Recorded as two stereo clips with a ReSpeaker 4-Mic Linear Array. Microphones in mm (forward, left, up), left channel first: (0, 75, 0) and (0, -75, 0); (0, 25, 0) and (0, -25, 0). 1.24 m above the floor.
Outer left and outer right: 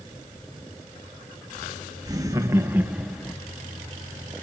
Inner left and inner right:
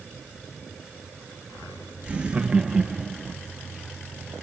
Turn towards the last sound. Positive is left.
turn(degrees=10)  # may be behind; listen again after turning